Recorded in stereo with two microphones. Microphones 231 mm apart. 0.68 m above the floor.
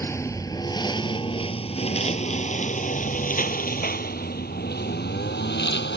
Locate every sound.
0.0 s a lawn mower: 10° left (ahead or behind); by 6.0 s 45° left (ahead or behind)